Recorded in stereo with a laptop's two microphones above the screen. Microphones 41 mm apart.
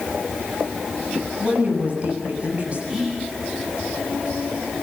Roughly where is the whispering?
Centre.